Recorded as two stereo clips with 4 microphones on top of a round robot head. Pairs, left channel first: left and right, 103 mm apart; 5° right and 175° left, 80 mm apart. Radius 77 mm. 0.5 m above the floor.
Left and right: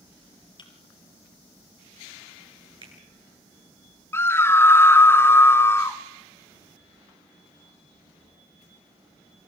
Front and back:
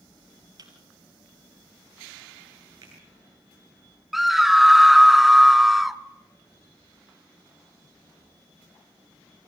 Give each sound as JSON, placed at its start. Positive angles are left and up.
{"t": 0.6, "sound": "a thud", "azimuth_deg": 135, "distance_m": 3.5}
{"t": 2.8, "sound": "a finger snap", "azimuth_deg": -130, "distance_m": 8.0}
{"t": 4.1, "sound": "a scream", "azimuth_deg": 85, "distance_m": 0.7}